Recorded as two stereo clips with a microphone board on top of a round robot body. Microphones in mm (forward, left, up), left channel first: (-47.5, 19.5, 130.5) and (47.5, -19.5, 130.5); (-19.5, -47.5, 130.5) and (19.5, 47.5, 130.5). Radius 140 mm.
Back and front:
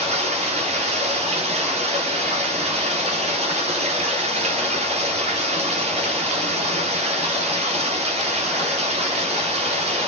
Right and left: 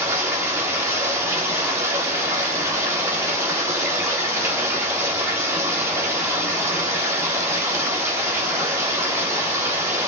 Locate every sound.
0.0 s running water: straight ahead, 3.5 m